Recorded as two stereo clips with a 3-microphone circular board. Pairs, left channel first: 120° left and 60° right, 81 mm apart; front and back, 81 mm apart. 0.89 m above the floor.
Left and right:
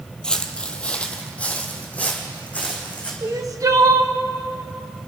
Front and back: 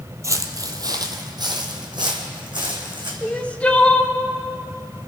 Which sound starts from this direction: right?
Crying, at 3.2 s.